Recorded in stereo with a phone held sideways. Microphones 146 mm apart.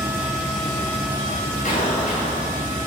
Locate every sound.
1.6 s an explosion: 65° left (ahead or behind), 6.5 m